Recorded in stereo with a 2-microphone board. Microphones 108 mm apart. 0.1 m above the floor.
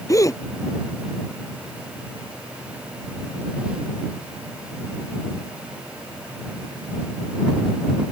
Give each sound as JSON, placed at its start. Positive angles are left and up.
{"t": 0.1, "sound": "a gasp", "side_deg": 30}